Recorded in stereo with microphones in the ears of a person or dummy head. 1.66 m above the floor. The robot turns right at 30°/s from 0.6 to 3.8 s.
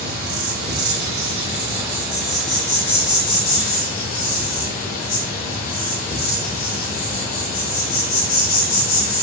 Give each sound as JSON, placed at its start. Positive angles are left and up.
{"t": 0.0, "sound": "an insect", "azimuth_deg": -55, "distance_m": 1.1}